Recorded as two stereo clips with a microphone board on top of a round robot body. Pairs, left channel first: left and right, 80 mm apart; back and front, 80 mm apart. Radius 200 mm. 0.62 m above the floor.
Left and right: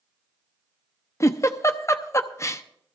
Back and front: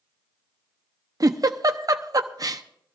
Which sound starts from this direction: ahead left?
A giggle, at 1.2 s.